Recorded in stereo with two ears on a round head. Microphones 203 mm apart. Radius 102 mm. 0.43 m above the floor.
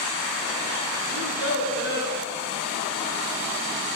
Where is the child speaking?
55° left (ahead or behind), 3 m; by 2.2 s 45° left (ahead or behind), 2.5 m.